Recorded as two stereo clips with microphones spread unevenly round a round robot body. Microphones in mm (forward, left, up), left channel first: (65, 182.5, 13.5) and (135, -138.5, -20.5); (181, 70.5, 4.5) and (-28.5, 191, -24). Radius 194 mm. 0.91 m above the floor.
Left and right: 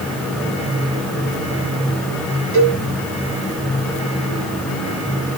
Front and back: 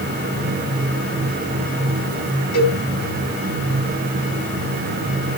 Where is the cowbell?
25° right, 7.5 m.